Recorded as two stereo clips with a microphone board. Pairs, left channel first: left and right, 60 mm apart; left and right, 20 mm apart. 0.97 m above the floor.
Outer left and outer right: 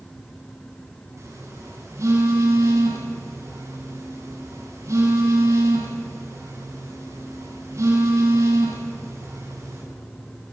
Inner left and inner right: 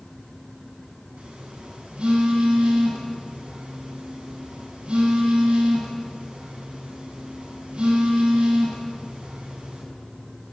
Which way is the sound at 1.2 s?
55° right (ahead or behind).